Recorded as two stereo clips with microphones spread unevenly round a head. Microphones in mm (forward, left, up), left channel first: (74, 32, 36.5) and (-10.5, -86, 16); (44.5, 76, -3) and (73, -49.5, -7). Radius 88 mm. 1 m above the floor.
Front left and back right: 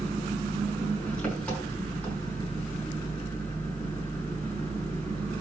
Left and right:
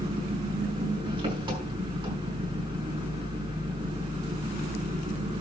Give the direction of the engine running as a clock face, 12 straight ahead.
1 o'clock.